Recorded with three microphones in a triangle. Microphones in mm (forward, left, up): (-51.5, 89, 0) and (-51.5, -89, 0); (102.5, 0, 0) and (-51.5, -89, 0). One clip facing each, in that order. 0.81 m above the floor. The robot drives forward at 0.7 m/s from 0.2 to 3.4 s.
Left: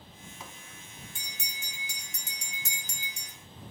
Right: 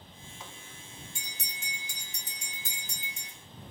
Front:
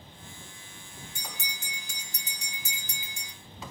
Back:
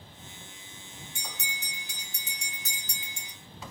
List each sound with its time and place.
1.1 s a bell: 60° left, 2 m; by 3.3 s 105° left, 1.8 m